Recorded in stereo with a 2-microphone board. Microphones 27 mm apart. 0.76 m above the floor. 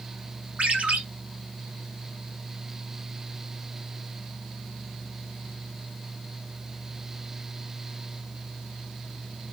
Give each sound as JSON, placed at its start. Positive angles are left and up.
{"t": 0.6, "sound": "a ringtone", "side_deg": -65, "distance_m": 1.7}